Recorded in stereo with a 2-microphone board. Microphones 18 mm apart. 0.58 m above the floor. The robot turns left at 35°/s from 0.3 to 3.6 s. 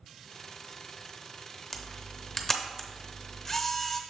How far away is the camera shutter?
About 0.7 m.